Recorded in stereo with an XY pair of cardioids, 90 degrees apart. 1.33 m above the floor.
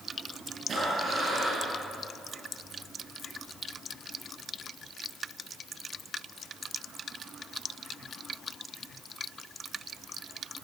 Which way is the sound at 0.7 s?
55° right.